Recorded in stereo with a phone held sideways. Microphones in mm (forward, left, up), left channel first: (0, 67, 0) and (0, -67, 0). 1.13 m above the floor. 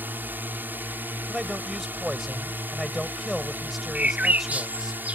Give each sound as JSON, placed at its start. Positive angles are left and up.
{"t": 0.0, "sound": "a drone", "side_deg": -15}
{"t": 1.3, "sound": "a man speaking", "side_deg": 0}
{"t": 4.0, "sound": "a bird", "side_deg": -10}